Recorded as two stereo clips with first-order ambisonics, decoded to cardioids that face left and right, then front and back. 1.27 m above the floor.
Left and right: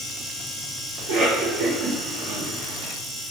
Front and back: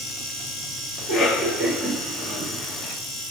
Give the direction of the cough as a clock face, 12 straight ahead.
3 o'clock.